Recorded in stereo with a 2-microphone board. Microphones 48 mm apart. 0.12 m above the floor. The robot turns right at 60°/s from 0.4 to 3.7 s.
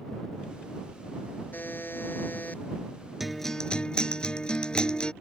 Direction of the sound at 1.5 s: 65° left.